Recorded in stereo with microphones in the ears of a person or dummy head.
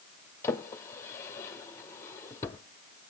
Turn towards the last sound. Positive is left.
turn(degrees=15)  # may be behind; listen again after turning